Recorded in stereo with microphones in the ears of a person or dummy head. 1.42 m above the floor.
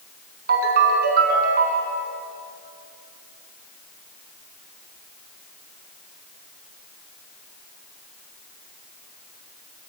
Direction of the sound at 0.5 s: 60° right (ahead or behind).